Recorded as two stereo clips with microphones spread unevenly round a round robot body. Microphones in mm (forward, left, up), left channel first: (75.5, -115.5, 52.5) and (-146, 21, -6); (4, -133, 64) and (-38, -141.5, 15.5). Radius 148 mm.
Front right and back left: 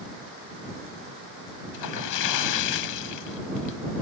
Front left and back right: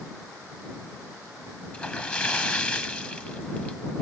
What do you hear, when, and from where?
1.7 s a splash: 25° right